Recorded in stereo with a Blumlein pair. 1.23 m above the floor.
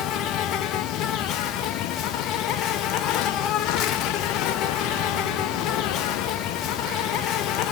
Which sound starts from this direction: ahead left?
An insect, at 0.0 s.